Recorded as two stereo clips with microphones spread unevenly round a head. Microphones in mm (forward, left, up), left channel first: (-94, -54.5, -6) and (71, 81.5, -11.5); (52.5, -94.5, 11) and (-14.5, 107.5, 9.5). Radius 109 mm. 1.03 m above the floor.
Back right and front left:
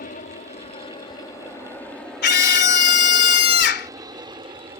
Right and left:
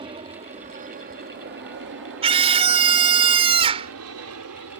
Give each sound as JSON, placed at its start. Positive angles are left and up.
{"t": 0.0, "sound": "an aircraft", "azimuth_deg": 175}
{"t": 2.2, "sound": "a scream", "azimuth_deg": 175}